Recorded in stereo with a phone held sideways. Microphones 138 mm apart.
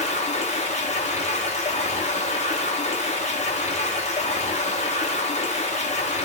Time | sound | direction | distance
0.0 | running water | 55° left (ahead or behind) | 0.9 m